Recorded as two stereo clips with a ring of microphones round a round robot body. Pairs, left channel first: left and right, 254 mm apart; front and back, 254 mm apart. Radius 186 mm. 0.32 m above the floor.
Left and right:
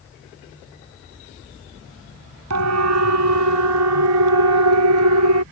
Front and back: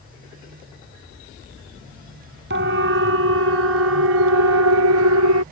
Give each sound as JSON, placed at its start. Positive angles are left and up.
{"t": 2.5, "sound": "a siren", "azimuth_deg": -125}